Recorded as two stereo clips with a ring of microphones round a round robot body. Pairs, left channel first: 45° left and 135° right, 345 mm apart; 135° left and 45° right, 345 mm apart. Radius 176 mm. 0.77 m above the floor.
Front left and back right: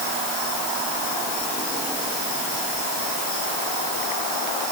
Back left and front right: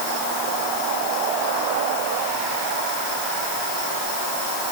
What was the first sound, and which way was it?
Only background noise.